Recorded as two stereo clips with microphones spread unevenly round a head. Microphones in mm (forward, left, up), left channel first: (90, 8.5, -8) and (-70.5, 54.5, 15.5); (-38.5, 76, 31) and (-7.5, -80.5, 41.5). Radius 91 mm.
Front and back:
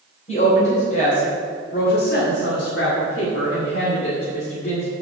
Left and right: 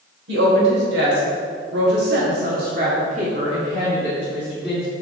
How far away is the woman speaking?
About 3.5 m.